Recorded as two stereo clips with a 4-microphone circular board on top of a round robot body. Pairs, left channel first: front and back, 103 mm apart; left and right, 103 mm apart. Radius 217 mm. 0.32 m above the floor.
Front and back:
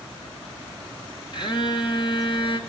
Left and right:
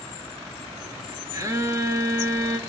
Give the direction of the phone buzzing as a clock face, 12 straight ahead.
1 o'clock.